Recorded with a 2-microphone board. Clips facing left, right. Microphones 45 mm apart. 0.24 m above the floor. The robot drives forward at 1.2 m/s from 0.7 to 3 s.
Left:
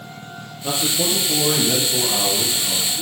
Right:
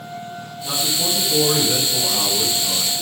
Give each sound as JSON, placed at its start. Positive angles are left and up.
{"t": 0.6, "sound": "a man speaking", "side_deg": 40, "distance_m": 6.0}